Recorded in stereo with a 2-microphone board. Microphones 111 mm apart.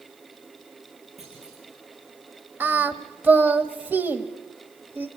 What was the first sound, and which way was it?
A clunk, 75° right (ahead or behind).